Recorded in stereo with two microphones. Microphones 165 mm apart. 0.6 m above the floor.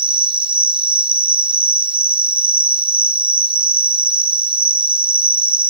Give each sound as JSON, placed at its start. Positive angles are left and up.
{"t": 0.0, "sound": "an insect", "side_deg": -30, "distance_m": 1.2}